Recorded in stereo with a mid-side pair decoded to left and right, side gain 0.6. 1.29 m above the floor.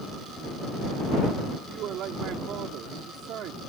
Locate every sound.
1.7 s a man speaking: 55° right